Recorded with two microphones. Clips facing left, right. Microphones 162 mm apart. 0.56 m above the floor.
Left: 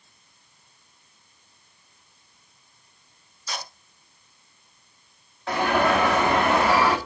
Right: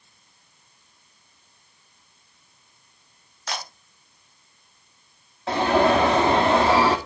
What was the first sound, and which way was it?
A camera shutter, 80° right.